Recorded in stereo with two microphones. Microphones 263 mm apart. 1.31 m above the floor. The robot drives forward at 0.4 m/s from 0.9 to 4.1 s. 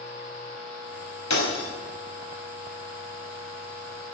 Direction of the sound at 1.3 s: 75° left (ahead or behind).